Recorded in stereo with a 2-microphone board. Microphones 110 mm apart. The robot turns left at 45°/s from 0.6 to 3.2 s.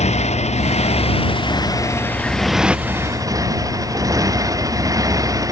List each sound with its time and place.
0.0 s a motorcycle: 85° left; by 5.5 s 30° right